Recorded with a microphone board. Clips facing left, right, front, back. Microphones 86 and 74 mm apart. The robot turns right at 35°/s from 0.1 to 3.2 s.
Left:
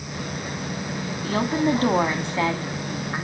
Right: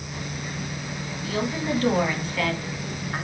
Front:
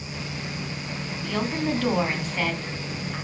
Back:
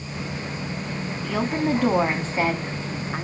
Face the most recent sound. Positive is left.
turn(degrees=170)